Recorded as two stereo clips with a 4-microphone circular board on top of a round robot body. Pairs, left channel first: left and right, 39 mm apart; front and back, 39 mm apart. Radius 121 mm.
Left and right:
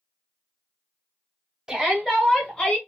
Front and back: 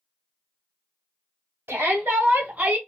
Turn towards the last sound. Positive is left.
turn(degrees=130)